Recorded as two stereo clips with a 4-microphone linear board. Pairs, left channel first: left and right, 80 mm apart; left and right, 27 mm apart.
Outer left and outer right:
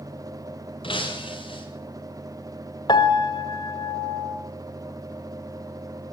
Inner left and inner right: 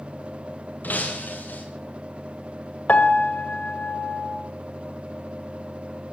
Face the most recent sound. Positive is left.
turn(degrees=60)  # may be behind; listen again after turning